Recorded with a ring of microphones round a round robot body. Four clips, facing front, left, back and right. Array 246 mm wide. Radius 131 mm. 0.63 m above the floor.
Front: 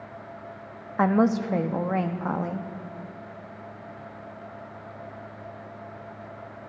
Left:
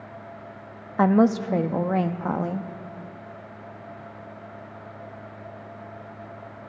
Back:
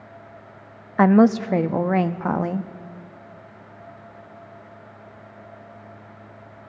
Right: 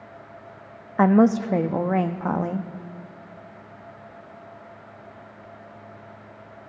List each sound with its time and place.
1.0 s a woman speaking: 170° right, 0.5 m